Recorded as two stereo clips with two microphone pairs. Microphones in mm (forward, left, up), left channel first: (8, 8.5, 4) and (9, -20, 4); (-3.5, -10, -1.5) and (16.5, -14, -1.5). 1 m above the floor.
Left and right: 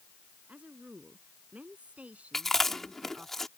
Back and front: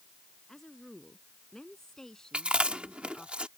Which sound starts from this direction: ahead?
Chewing, at 2.3 s.